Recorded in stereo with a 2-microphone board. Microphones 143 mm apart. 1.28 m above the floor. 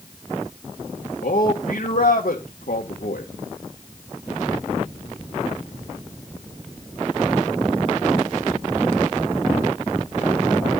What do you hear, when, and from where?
1.2 s a man speaking: 70° left (ahead or behind), 1.7 m